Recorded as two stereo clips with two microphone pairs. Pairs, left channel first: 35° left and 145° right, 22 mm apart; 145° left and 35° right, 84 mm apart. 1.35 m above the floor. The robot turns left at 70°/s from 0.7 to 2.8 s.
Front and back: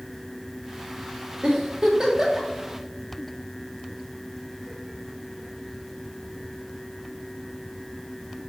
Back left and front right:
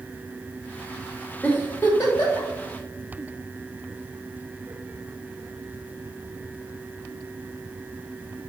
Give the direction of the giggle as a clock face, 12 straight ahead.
5 o'clock.